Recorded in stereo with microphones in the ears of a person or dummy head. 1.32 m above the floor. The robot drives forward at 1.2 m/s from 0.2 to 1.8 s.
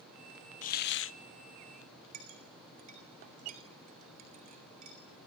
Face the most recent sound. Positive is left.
turn(degrees=-45)  # may be behind; listen again after turning